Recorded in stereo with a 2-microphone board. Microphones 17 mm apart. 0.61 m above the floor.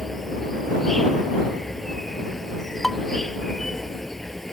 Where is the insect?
15° left (ahead or behind).